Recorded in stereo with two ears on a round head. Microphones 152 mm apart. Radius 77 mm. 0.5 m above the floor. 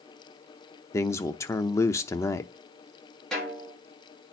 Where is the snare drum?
5° left (ahead or behind), 8.5 m.